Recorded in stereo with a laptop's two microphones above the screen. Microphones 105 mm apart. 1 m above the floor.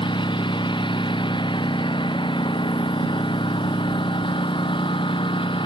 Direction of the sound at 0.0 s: 55° left (ahead or behind).